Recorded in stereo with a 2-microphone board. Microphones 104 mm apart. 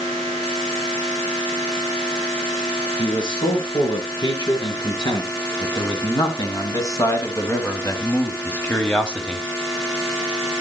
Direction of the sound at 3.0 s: 50° left (ahead or behind).